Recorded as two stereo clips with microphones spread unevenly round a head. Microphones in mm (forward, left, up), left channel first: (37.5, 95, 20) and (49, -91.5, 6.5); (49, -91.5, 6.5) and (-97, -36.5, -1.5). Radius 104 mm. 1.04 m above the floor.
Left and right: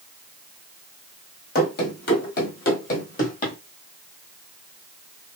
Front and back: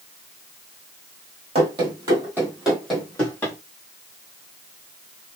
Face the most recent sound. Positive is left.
turn(degrees=55)